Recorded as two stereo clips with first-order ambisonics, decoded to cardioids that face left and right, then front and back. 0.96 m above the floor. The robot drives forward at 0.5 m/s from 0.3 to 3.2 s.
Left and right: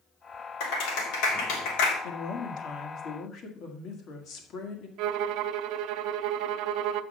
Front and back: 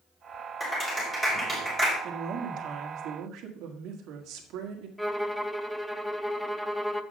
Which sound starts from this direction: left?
A clap, at 0.6 s.